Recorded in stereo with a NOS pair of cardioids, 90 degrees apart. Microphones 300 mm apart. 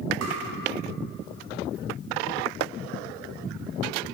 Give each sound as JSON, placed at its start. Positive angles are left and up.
{"t": 0.2, "sound": "tapping", "azimuth_deg": -65, "distance_m": 4.5}